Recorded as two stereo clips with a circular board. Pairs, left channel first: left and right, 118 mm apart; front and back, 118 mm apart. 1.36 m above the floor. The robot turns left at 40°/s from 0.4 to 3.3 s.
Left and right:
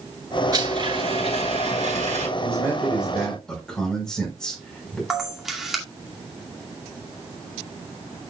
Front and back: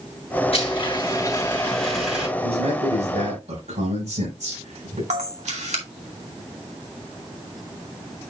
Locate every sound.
0.5 s a blender: 30° right, 6.5 m; by 2.3 s 105° right, 6.5 m
2.4 s a man speaking: 145° right, 4.5 m; by 5.0 s 175° left, 4.5 m
5.1 s a camera shutter: 175° right, 2 m